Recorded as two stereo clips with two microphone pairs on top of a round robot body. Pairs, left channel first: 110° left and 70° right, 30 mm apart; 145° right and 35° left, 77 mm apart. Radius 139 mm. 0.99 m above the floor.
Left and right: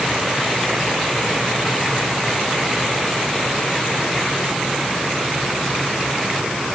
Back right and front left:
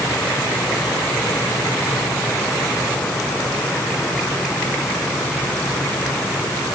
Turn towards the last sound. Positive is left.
No sound to turn to.